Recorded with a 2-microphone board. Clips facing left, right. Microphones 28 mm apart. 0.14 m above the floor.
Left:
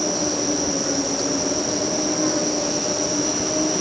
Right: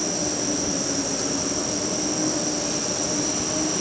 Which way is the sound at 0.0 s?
25° left (ahead or behind).